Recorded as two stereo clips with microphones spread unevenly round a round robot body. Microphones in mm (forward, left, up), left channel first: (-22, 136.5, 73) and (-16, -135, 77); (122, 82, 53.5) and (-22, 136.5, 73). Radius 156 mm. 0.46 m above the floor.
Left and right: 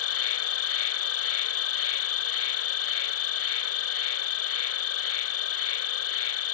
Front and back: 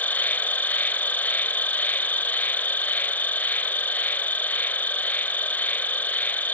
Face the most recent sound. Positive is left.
turn(degrees=60)